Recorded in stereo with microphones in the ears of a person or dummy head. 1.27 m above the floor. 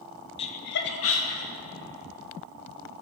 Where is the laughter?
30° left (ahead or behind), 0.8 m; by 1.5 s 70° left (ahead or behind), 2.0 m.